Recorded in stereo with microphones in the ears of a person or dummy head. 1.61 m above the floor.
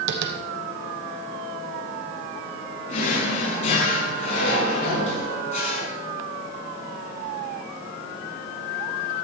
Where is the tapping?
60° right (ahead or behind), 1.0 m.